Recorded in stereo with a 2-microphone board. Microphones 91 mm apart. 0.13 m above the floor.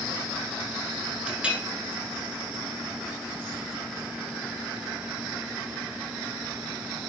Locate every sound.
1.3 s a clink: 10° right (ahead or behind), 1.0 m